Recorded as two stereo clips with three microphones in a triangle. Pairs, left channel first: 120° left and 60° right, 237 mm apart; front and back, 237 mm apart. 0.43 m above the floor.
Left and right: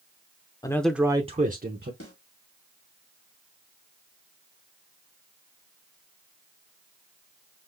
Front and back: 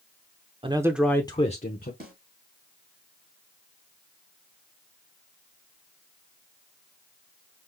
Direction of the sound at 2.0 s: 135° left.